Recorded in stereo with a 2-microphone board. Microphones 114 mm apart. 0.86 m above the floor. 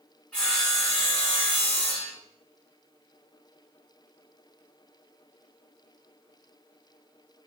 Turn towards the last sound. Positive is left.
turn(degrees=10)  # may be behind; listen again after turning